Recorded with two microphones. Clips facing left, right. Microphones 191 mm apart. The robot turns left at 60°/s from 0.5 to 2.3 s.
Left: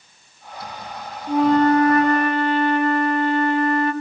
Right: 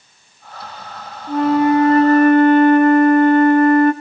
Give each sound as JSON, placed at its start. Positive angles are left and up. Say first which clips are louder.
{"t": 1.3, "sound": "a flute", "louder": "right 1 dB", "azimuth_deg": 10, "distance_m": 0.6}